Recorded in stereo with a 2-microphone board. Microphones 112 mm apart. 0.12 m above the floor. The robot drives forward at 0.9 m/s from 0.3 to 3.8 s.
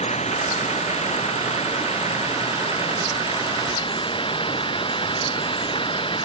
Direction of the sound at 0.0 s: 80° left.